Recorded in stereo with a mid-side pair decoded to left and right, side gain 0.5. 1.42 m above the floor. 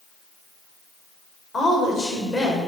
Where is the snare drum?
I don't hear a snare drum.